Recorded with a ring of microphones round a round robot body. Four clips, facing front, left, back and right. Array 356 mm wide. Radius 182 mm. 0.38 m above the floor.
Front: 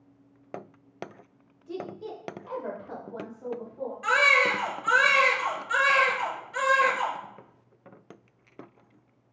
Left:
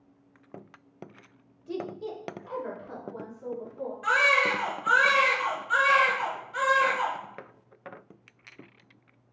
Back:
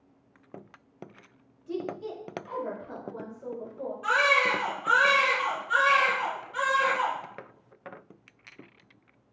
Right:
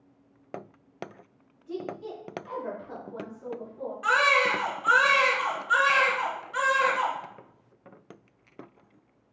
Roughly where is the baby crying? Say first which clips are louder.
Right 1 dB, front 1 dB; ahead right.